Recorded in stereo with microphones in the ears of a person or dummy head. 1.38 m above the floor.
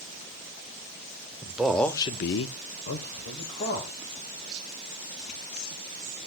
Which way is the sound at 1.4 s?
10° right (ahead or behind).